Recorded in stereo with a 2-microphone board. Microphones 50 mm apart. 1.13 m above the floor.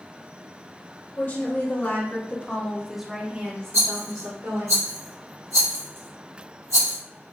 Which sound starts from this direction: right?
A rattle, at 3.7 s.